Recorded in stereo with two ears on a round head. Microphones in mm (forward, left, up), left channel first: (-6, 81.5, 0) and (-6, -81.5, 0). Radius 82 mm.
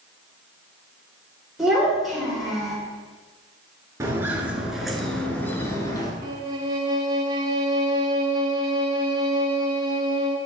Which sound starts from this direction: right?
A violin, at 6.2 s.